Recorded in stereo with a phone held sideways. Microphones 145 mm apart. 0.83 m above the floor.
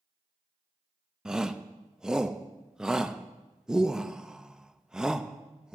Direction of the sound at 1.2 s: 5° right (ahead or behind).